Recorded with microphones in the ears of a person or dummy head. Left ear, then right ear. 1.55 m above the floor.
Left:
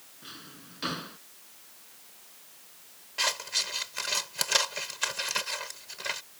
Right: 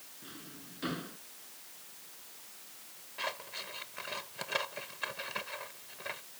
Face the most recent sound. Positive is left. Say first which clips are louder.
# left 10 dB
turn(degrees=90)